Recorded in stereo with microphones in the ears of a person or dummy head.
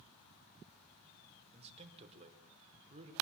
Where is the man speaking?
35° right (ahead or behind), 5 m.